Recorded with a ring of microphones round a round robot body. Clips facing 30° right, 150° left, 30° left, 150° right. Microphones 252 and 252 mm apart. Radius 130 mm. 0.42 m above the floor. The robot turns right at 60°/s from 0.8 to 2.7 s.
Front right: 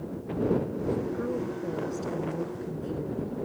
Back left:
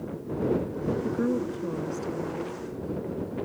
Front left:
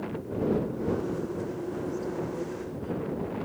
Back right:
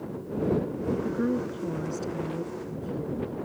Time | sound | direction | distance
1.0 | a woman speaking | 170° right | ?